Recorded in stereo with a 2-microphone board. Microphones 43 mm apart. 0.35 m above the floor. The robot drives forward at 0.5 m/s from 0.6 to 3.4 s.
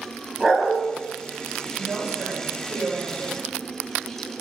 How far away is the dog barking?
About 0.6 m.